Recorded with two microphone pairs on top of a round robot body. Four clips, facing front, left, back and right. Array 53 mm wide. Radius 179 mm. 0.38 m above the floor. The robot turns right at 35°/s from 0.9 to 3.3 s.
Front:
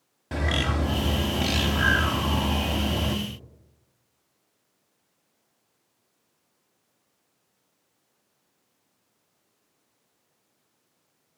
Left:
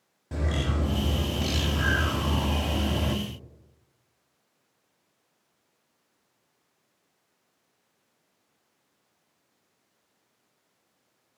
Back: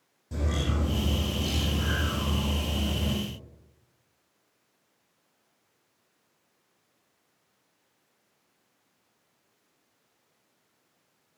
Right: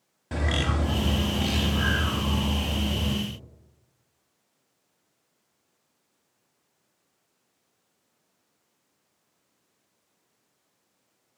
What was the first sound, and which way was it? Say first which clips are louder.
A bird: right 3 dB, front 5 dB; 35° right.